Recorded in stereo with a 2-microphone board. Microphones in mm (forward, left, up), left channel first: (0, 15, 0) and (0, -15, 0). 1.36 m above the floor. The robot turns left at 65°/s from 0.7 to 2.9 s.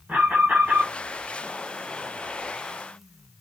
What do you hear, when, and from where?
0.1 s an alarm: 85° right, 6 m; by 0.9 s 75° right (ahead or behind), 6 m